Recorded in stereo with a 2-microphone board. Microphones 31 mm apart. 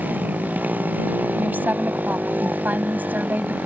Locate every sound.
0.0 s a motorcycle: 70° right (ahead or behind)
1.4 s a woman speaking: 80° right